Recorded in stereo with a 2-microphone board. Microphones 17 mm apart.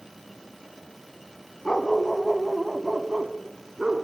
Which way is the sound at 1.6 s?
45° left (ahead or behind).